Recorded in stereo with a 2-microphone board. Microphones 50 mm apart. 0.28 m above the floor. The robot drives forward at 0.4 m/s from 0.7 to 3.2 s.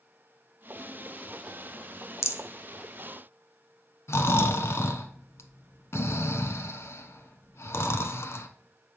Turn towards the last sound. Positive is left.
turn(degrees=60)  # may be behind; listen again after turning